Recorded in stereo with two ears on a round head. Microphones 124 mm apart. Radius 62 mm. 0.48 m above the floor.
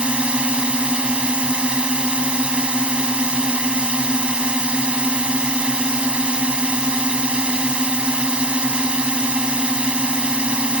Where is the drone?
10° right (ahead or behind).